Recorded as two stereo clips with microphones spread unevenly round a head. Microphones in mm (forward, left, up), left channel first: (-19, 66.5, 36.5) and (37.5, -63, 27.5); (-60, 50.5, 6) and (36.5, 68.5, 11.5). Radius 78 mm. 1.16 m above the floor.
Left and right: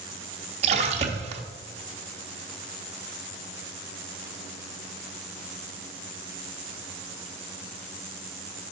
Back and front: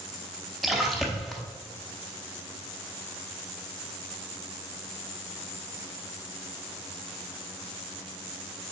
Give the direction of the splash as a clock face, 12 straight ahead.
2 o'clock.